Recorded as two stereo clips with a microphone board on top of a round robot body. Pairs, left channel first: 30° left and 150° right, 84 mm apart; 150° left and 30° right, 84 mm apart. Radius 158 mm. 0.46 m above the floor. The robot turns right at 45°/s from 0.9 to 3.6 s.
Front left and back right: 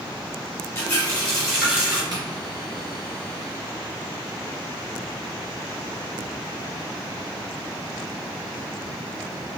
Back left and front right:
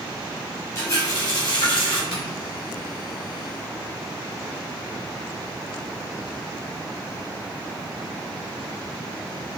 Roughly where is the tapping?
Behind.